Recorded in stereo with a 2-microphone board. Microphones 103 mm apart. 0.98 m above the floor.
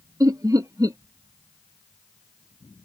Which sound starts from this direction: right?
Laughter, at 0.2 s.